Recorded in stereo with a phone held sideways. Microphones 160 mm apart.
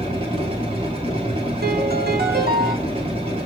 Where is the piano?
75° right (ahead or behind), 2 m.